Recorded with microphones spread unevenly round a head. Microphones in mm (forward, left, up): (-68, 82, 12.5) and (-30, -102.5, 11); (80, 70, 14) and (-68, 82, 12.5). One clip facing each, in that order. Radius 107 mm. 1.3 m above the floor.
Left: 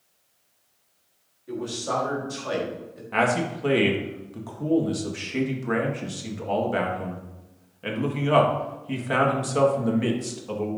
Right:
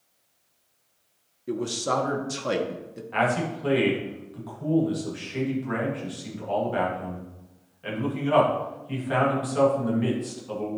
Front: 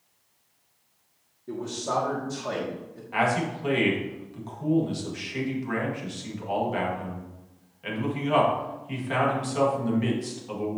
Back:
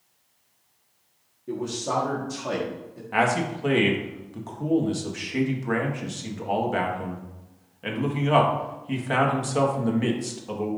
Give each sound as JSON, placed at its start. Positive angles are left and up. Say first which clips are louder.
{"t": 1.5, "sound": "a man speaking", "louder": "right 2 dB, back 2 dB", "azimuth_deg": -105, "distance_m": 1.4}
{"t": 3.1, "sound": "a man speaking", "louder": "left 2 dB, back 2 dB", "azimuth_deg": 135, "distance_m": 1.8}